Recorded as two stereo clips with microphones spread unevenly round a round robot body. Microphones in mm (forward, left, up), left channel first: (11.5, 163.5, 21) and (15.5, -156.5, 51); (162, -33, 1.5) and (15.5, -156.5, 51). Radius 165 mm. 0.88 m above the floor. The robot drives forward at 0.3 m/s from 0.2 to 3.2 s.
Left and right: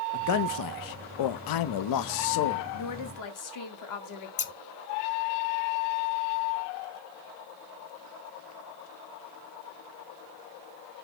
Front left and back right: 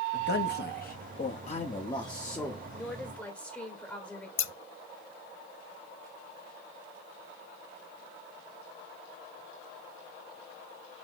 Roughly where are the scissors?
Ahead left.